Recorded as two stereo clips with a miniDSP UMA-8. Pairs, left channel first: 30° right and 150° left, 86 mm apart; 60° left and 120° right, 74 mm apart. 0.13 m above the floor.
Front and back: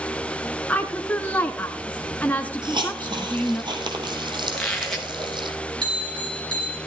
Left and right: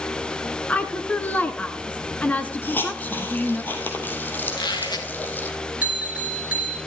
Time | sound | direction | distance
0.7 | a woman speaking | 20° left | 1.1 m
2.6 | a hiss | 125° left | 3 m
4.5 | a squeak | 55° left | 3 m
5.8 | a bell | 170° left | 2 m